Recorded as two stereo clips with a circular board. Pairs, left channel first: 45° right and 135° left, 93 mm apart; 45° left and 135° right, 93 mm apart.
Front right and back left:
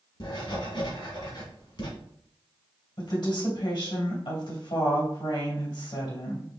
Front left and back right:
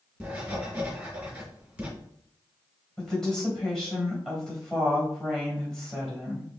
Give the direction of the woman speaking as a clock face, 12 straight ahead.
1 o'clock.